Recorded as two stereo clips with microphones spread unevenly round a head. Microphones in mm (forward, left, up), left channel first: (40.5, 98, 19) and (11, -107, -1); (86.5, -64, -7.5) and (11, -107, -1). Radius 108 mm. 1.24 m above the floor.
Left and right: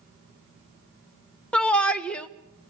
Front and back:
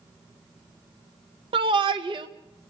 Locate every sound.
1.5 s a shout: 170° left, 1.2 m